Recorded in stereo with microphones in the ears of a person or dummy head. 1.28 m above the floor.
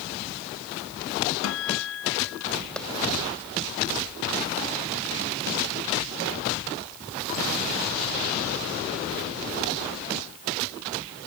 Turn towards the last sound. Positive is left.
turn(degrees=10)  # may be behind; listen again after turning